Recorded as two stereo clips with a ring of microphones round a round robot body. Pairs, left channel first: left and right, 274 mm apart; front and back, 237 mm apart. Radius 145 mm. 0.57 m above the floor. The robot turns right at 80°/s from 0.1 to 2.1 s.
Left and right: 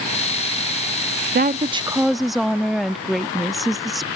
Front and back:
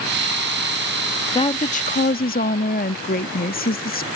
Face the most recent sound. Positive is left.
turn(degrees=0)